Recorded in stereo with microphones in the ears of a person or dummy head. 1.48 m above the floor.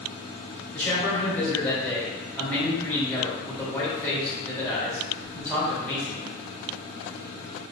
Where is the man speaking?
10° left (ahead or behind), 1.8 m.